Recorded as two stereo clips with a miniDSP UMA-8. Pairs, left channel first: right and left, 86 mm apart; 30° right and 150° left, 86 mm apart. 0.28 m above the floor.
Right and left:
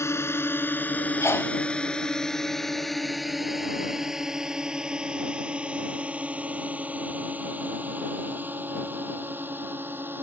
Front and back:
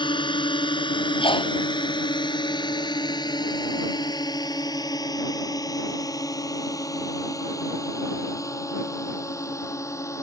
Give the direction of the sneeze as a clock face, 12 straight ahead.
1 o'clock.